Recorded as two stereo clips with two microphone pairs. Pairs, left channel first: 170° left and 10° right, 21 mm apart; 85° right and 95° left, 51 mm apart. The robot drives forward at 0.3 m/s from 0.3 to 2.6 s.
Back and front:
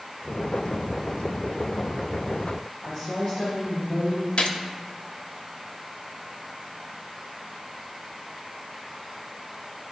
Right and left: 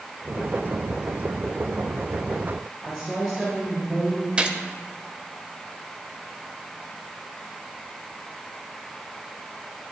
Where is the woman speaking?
175° right, 2 m.